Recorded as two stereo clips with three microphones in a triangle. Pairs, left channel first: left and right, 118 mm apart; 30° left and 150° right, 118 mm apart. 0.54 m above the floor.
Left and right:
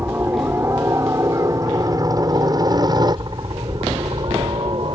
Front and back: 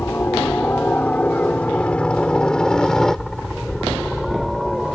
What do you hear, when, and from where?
0.0 s a helicopter: 30° right; by 4.9 s 65° right